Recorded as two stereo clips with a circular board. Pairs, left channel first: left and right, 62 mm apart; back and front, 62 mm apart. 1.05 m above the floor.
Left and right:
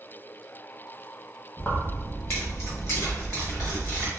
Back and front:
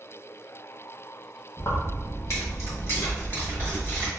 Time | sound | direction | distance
1.6 | keys jangling | 165° left | 0.8 m